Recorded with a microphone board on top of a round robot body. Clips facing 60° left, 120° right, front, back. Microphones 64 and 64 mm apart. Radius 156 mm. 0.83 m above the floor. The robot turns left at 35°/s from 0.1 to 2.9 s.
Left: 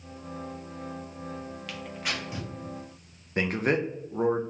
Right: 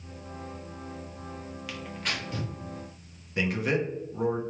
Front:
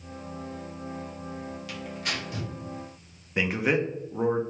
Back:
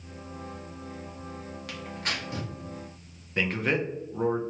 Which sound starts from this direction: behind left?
Tearing paper, at 1.7 s.